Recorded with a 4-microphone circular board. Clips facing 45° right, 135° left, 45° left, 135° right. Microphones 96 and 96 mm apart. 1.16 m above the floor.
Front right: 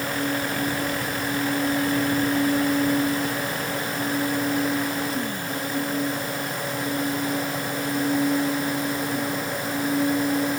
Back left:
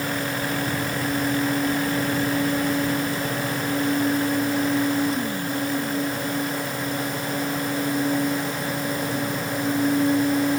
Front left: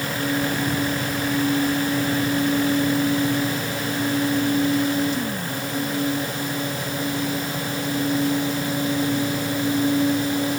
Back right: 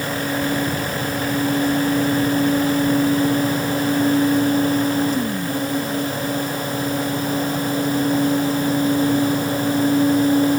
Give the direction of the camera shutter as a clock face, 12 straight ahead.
No camera shutter in this recording.